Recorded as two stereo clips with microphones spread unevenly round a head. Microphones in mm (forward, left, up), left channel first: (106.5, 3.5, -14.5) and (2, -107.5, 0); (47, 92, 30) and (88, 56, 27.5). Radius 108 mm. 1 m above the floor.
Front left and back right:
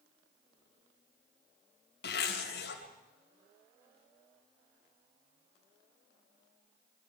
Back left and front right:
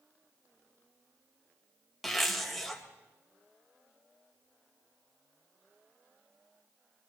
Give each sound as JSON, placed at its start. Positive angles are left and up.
{"t": 2.0, "sound": "a zipper", "azimuth_deg": 55, "distance_m": 3.5}